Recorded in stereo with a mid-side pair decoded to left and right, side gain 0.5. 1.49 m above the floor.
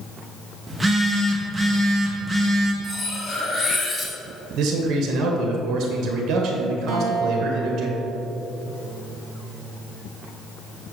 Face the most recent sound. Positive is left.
turn(degrees=-50)